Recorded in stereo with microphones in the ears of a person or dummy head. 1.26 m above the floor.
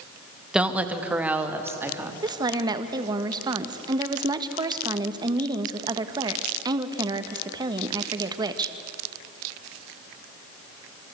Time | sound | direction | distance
0.5 | a woman speaking | 5° right (ahead or behind) | 1.6 m
2.2 | a woman speaking | 20° right (ahead or behind) | 1.5 m